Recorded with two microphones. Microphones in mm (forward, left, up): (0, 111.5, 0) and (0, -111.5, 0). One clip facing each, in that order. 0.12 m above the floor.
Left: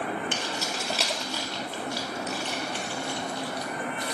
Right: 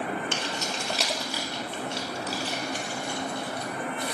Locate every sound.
0.3 s keys jangling: 15° left (ahead or behind), 1.7 m; by 4.2 s 65° right (ahead or behind), 2.5 m